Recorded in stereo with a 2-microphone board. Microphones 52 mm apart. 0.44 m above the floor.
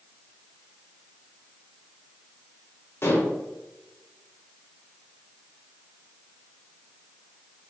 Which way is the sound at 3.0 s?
45° left (ahead or behind).